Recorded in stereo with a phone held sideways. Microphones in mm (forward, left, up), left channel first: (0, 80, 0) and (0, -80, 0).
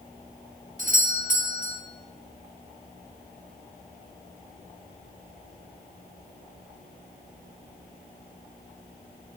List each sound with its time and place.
0.8 s a doorbell: 60° right (ahead or behind), 2 m